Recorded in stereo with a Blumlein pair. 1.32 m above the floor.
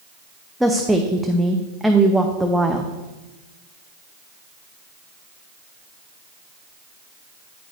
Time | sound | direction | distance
0.6 | a woman speaking | straight ahead | 0.7 m